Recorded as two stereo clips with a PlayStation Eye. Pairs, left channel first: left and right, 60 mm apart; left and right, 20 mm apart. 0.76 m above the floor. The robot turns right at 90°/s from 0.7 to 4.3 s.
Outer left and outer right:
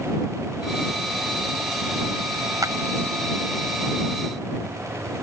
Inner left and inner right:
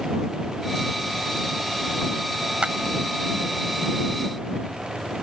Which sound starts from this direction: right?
A clap, at 2.6 s.